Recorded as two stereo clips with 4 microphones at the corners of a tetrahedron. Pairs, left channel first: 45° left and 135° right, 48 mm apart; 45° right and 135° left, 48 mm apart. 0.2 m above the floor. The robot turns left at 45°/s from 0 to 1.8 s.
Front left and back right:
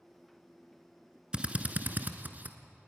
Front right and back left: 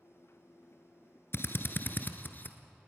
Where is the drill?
70° right, 1.4 m; by 2.6 s 90° right, 1.4 m.